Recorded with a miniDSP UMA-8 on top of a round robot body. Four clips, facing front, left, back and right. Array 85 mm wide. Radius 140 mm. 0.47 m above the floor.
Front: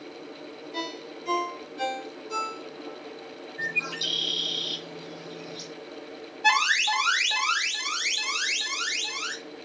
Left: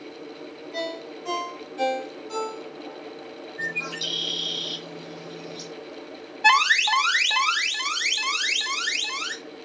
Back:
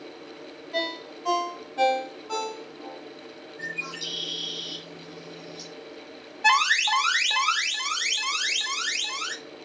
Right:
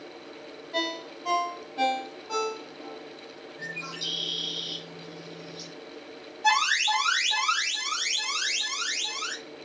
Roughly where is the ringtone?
Behind.